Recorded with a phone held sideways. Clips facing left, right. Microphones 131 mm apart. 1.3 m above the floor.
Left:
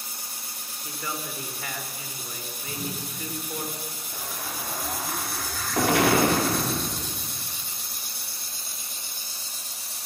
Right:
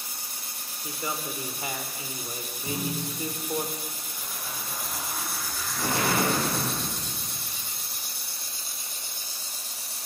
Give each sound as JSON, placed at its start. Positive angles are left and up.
{"t": 0.8, "sound": "a man speaking", "side_deg": -20, "distance_m": 3.5}
{"t": 2.6, "sound": "a thud", "side_deg": -75, "distance_m": 7.5}
{"t": 4.1, "sound": "an explosion", "side_deg": 80, "distance_m": 4.0}